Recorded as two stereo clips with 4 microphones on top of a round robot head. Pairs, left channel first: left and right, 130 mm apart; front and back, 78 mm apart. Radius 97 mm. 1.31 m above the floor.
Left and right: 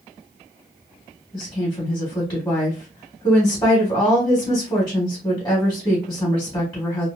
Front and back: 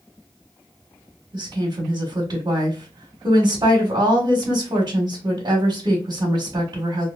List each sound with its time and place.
1.3 s a woman speaking: 155° left, 1.6 m